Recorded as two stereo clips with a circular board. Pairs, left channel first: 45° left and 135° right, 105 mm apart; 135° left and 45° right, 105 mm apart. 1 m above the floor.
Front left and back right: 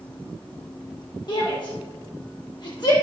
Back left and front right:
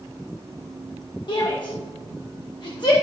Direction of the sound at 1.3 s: 90° left.